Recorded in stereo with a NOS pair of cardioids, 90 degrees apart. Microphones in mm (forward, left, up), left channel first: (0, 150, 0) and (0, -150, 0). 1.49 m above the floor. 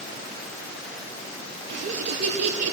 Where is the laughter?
60° right, 3.5 m; by 2.7 s 65° right, 3 m.